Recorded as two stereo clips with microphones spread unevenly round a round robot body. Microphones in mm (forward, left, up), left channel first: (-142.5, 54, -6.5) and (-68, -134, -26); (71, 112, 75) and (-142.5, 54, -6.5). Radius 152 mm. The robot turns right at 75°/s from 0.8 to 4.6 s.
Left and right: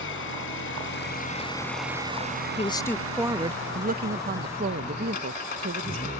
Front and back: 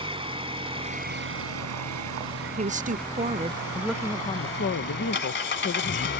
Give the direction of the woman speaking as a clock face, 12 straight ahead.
6 o'clock.